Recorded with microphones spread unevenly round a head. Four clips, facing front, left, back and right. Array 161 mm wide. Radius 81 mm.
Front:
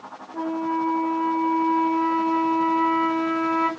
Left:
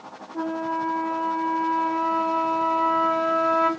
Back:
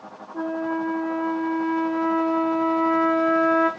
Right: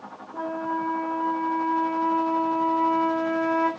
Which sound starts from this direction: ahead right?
A flute, at 0.3 s.